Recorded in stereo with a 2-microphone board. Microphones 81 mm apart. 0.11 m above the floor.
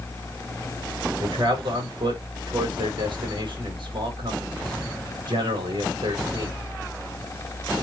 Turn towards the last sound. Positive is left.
turn(degrees=-75)  # may be behind; listen again after turning